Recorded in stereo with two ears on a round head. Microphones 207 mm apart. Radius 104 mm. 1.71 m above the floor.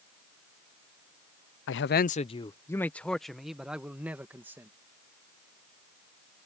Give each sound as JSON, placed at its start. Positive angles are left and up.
{"t": 1.7, "sound": "a man speaking", "side_deg": 55}